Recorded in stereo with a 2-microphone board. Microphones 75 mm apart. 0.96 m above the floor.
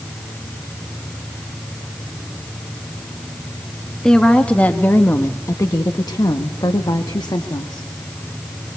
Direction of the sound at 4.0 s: 10° left (ahead or behind).